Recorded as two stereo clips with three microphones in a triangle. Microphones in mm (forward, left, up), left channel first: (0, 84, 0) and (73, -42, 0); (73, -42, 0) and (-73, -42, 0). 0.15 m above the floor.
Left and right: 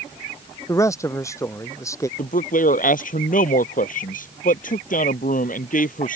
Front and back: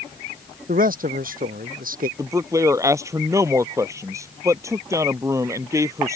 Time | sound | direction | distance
0.7 | a man speaking | 170° right | ?
2.2 | a man speaking | 115° left | ?